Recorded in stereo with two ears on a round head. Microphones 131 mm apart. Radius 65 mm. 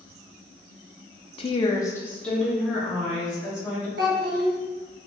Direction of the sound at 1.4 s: 40° left (ahead or behind).